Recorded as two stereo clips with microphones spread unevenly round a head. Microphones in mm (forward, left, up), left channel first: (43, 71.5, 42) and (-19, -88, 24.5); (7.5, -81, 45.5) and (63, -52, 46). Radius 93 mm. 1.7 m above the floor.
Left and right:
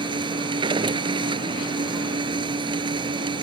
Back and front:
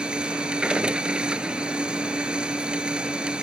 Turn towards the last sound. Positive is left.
turn(degrees=-45)